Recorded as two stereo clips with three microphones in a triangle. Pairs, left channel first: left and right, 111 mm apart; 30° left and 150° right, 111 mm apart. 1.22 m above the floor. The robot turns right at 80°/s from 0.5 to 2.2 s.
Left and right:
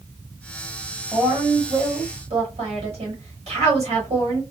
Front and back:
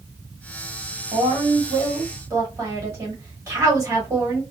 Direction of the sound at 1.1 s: 175° right.